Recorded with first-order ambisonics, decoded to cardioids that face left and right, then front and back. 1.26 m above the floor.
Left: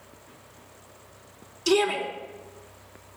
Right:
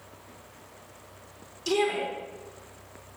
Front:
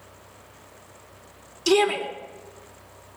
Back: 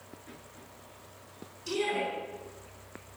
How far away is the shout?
About 3.5 m.